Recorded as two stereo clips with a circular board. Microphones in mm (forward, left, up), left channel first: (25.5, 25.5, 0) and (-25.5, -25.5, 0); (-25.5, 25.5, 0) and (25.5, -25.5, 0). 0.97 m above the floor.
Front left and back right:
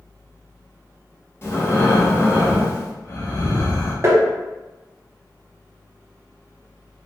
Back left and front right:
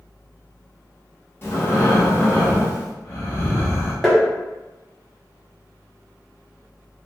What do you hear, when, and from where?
1.4 s breathing: 90° left, 0.9 m
4.0 s tapping: 140° right, 0.9 m